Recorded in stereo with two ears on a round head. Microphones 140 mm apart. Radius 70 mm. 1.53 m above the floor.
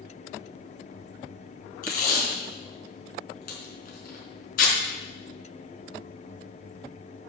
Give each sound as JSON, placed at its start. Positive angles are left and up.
{"t": 1.8, "sound": "tape being pulled", "side_deg": 55, "distance_m": 4.0}